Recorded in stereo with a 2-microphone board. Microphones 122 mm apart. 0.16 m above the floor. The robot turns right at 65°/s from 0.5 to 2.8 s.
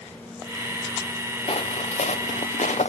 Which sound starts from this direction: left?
Footsteps, at 1.5 s.